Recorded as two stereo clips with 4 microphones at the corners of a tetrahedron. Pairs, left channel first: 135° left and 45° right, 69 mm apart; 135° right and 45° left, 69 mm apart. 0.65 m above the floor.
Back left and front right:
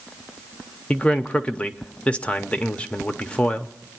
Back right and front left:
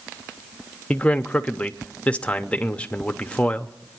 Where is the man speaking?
Straight behind, 0.7 m.